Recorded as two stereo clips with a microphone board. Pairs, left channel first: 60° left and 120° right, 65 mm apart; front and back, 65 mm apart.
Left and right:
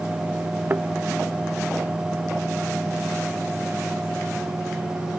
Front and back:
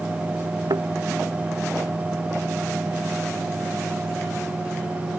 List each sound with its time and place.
0.7 s a thud: straight behind